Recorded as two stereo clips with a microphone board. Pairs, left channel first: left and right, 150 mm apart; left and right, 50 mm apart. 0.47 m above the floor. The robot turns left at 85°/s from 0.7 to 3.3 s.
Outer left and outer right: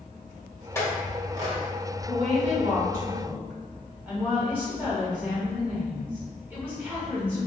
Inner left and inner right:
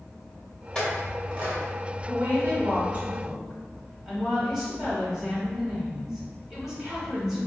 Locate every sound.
0.8 s a clink: 20° left (ahead or behind), 1.1 m; by 1.6 s 35° right (ahead or behind), 1.1 m
2.1 s a woman speaking: 60° right, 1.8 m; by 7.5 s 165° right, 1.8 m